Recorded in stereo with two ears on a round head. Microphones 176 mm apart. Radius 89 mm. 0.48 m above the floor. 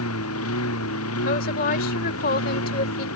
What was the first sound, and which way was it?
A lawn mower, 80° left.